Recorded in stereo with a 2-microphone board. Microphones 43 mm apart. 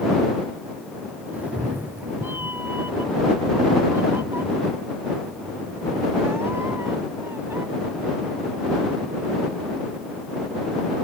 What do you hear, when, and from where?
1.3 s a cat meowing: 35° right (ahead or behind); by 7.6 s 65° right (ahead or behind)